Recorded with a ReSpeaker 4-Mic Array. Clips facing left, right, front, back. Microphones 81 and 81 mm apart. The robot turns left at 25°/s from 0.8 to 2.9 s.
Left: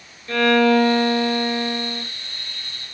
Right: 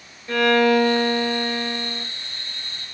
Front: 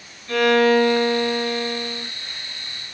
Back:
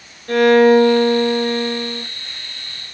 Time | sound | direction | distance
0.3 | a violin | 160° right | 0.8 m